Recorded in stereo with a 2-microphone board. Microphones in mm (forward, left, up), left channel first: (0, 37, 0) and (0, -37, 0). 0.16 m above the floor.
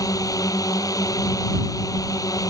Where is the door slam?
I don't hear a door slam.